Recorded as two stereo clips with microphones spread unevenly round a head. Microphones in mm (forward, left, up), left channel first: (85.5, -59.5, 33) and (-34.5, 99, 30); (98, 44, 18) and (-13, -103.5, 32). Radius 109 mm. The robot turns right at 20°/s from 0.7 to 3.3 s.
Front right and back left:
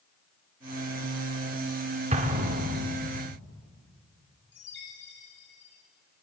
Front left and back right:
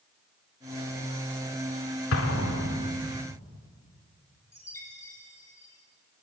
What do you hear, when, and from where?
2.1 s an explosion: 75° left, 2.0 m; by 3.0 s 90° left, 2.0 m
4.5 s a chime: 25° right, 8 m